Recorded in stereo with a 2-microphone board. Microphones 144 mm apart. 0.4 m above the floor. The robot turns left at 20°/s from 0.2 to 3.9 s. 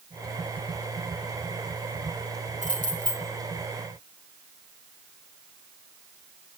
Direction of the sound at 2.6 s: 65° right (ahead or behind).